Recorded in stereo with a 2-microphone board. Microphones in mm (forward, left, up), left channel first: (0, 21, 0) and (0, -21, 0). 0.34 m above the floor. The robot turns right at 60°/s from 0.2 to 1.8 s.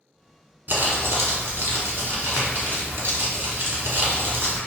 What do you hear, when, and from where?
0.7 s crumpling: 130° right, 0.9 m; by 4.6 s 65° right, 0.9 m